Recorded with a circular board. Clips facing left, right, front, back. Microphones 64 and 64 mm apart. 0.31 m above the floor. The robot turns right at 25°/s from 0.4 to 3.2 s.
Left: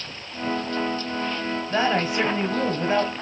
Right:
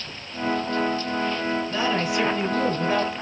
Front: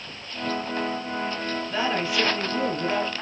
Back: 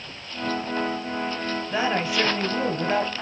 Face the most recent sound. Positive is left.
turn(degrees=150)